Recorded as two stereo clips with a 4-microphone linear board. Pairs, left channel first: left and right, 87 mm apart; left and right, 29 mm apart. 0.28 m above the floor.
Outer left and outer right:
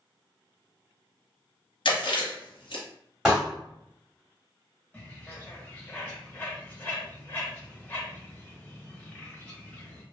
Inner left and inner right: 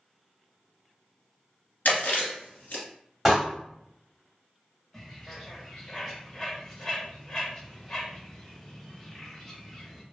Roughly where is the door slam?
Centre.